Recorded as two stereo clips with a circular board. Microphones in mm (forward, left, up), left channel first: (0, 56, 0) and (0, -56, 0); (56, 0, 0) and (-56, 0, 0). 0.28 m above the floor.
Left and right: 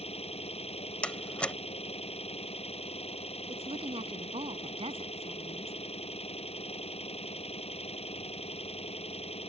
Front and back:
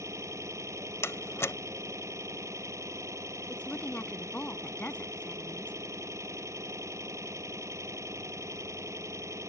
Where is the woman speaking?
75° right.